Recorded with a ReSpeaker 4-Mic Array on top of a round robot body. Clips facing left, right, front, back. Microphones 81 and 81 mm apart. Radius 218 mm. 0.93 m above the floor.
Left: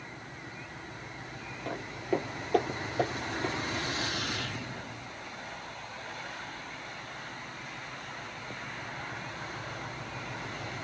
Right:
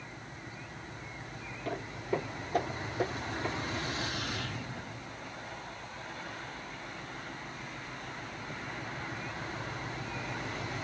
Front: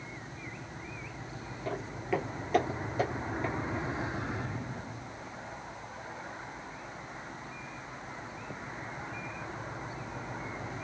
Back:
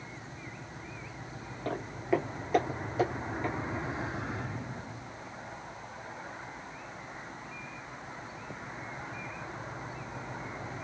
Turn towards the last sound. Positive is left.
turn(degrees=85)